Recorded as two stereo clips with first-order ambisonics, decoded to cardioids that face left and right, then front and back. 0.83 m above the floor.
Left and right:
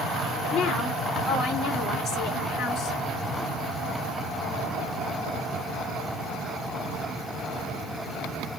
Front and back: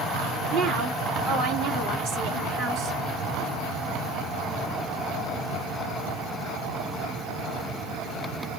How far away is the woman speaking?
About 1.9 m.